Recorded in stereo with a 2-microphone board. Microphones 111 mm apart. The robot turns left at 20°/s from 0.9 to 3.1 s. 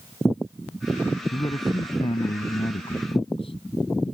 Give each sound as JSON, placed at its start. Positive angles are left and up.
{"t": 1.3, "sound": "a man speaking", "azimuth_deg": 130}